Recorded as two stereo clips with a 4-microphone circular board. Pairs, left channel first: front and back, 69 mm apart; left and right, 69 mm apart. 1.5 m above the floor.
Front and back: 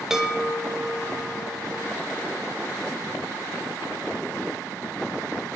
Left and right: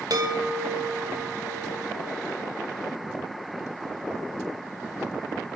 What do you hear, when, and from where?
0.1 s a chime: 100° right, 0.8 m